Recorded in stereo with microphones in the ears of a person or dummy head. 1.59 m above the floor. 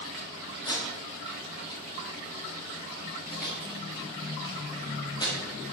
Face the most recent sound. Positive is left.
turn(degrees=20)  # may be behind; listen again after turning